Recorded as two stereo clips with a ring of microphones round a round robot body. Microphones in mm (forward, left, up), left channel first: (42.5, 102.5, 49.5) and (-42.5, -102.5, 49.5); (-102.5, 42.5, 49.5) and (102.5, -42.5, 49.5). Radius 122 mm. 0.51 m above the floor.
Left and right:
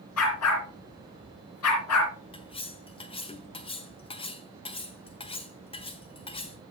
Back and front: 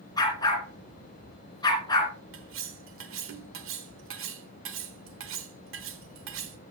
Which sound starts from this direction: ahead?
Cutlery clinking, at 2.3 s.